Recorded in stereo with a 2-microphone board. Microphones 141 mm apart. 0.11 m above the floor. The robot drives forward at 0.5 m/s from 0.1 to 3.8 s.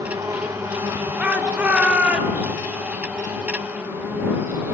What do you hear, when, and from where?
0.0 s an insect: 20° right (ahead or behind), 2 m; by 4.7 s 10° right (ahead or behind), 4 m
1.2 s a shout: 10° right (ahead or behind), 2.0 m